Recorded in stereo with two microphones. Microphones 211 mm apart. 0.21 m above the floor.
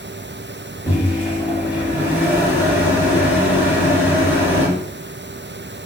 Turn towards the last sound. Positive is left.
turn(degrees=-10)  # may be behind; listen again after turning